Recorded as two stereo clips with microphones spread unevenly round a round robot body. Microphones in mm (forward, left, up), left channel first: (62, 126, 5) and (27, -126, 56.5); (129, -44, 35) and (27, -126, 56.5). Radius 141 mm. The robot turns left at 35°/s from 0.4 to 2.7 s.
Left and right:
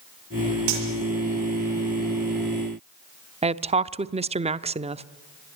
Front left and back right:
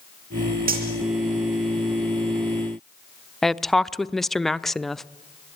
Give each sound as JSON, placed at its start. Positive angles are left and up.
{"t": 0.7, "sound": "cutlery clinking", "azimuth_deg": -135, "distance_m": 6.5}
{"t": 3.4, "sound": "a woman speaking", "azimuth_deg": -30, "distance_m": 0.8}